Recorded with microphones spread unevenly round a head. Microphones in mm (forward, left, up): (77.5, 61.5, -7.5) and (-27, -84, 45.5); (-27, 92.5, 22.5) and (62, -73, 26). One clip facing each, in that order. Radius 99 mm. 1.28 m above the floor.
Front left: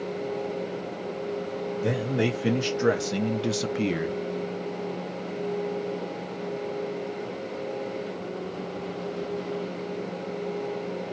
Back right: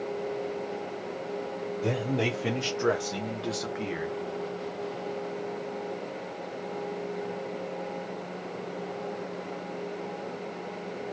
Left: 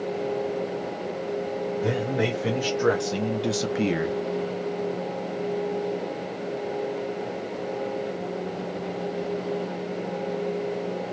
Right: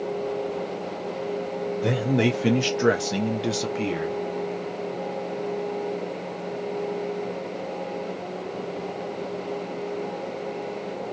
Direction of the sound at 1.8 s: 20° right.